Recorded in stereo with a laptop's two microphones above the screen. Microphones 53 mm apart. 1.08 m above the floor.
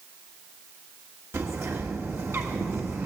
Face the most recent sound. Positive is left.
turn(degrees=-60)  # may be behind; listen again after turning